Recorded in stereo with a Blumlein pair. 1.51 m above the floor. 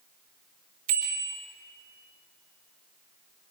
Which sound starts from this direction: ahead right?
A bicycle bell, at 0.9 s.